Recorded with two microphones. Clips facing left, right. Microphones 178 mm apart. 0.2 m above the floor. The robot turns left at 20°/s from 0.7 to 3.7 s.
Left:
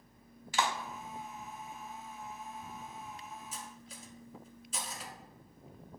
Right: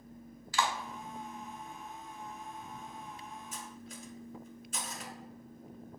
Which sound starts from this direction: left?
A clap, at 0.5 s.